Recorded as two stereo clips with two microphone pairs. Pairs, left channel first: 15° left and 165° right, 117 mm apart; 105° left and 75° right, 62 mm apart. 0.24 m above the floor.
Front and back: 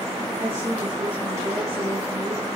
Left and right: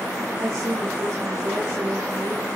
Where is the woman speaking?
125° right, 7.5 m.